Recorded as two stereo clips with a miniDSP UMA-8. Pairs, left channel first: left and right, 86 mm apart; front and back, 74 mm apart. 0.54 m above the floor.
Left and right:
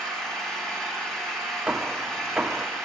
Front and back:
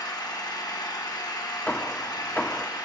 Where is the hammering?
35° right, 0.6 m.